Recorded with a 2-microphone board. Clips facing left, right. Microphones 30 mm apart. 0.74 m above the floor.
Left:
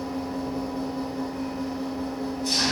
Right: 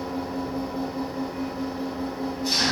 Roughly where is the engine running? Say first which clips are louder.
Even; centre.